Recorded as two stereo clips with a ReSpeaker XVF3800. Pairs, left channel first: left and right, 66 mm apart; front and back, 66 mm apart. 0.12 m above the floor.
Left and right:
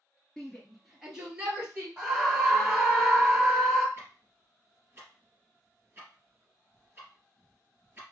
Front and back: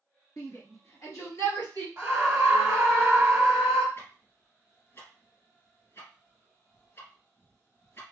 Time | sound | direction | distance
0.4 | a shout | 15° left | 1.4 m
2.0 | a scream | 150° right | 1.3 m
4.0 | ticking | 35° right | 2.5 m